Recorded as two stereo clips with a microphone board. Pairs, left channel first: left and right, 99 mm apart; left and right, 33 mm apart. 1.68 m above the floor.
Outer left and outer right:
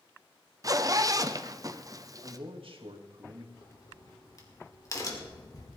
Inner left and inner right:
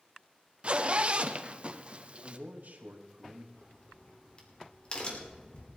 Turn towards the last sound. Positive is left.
turn(degrees=35)  # may be behind; listen again after turning